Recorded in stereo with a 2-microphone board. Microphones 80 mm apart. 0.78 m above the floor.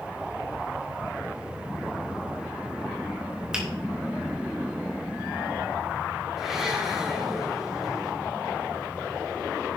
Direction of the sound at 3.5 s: 10° right (ahead or behind).